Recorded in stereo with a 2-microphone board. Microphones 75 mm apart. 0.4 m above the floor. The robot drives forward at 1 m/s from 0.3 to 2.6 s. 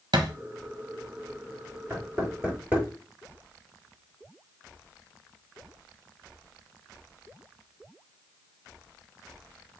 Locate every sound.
0.1 s a thud: 70° right (ahead or behind), 1.1 m
1.9 s knocking: 25° right (ahead or behind), 4 m; by 2.9 s 20° right (ahead or behind), 5 m